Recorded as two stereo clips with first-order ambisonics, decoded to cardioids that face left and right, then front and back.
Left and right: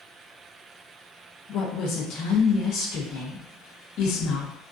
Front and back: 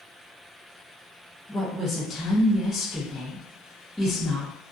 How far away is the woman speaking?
About 0.5 m.